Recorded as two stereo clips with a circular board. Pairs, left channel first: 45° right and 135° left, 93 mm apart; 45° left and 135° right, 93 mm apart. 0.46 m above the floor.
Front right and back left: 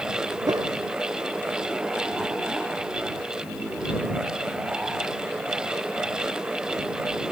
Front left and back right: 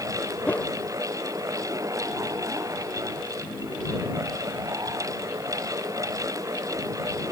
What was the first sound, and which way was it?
A whoosh, 110° left.